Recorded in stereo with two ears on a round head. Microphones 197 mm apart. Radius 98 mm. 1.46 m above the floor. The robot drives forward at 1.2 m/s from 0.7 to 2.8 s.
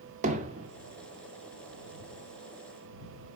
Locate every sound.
0.2 s hammering: 35° right (ahead or behind), 1.1 m